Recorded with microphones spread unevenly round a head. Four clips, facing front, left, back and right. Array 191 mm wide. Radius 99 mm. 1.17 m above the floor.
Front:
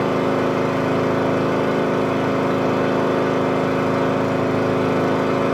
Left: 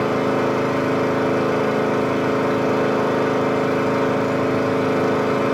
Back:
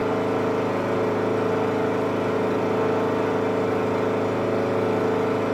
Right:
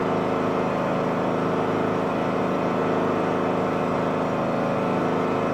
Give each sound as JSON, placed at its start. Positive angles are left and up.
{"t": 0.0, "sound": "an engine running", "azimuth_deg": 50, "distance_m": 1.2}